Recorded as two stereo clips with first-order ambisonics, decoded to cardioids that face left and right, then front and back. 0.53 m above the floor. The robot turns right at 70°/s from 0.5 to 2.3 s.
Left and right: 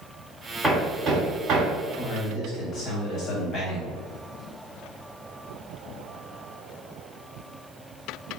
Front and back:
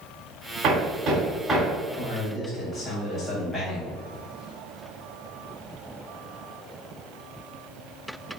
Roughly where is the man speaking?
Ahead left.